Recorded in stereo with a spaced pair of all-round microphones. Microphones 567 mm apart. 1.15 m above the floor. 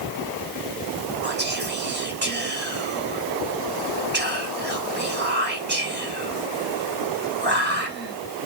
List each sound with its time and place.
1.2 s whispering: 20° right (ahead or behind), 1.4 m